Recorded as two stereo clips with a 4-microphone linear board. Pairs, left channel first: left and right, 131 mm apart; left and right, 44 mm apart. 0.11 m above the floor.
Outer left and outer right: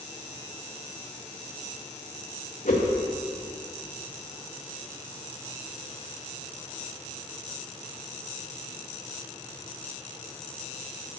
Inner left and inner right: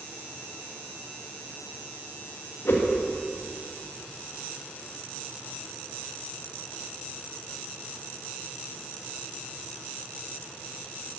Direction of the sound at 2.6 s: 80° left.